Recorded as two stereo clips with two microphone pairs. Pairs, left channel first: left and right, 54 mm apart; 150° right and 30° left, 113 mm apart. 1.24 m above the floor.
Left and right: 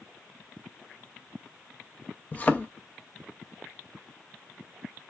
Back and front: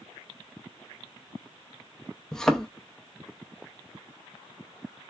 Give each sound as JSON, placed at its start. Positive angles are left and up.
{"t": 2.3, "sound": "a thud", "azimuth_deg": 130, "distance_m": 0.6}